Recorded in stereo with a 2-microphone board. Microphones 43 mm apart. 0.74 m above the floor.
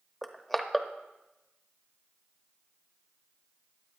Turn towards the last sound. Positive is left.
turn(degrees=0)  # may be behind; listen again after turning